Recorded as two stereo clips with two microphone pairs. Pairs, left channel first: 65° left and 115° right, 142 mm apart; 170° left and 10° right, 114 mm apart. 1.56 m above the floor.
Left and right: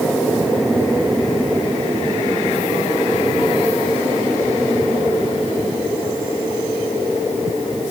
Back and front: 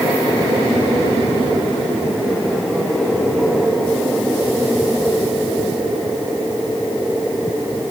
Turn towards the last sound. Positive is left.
No sound to turn to.